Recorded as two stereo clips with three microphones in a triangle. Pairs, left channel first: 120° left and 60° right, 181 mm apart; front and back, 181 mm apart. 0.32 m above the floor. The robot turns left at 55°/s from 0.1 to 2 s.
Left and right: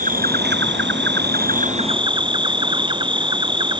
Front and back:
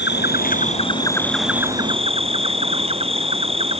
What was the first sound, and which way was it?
An insect, 20° right.